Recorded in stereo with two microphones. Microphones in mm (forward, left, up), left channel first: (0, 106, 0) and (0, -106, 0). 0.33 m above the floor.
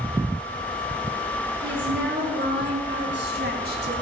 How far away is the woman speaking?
About 5 m.